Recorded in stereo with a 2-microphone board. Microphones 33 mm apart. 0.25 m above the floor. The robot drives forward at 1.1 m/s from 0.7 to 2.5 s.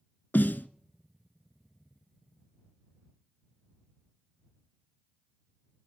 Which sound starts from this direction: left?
A snare drum, at 0.3 s.